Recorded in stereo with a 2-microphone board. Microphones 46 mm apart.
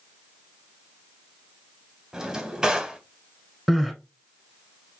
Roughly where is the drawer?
Centre.